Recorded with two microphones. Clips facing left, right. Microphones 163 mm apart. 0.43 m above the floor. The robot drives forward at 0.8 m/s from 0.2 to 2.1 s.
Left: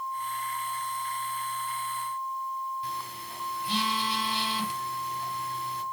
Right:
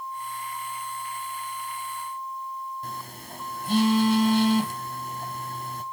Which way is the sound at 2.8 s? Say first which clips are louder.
Even; 45° right (ahead or behind).